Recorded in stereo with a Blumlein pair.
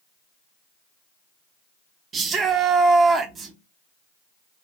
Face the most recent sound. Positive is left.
turn(degrees=-20)